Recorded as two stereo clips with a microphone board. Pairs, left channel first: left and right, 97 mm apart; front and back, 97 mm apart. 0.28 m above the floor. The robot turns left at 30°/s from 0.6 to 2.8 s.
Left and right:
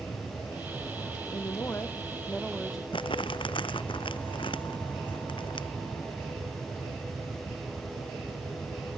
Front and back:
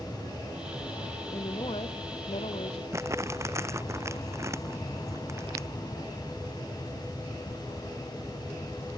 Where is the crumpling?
120° left.